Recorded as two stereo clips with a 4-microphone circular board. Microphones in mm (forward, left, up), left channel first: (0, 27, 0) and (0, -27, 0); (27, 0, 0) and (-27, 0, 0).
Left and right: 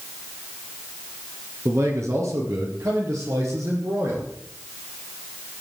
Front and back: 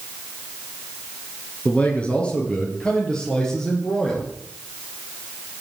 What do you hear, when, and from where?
1.6 s a man speaking: 65° right, 3 m; by 4.3 s 80° right, 6.5 m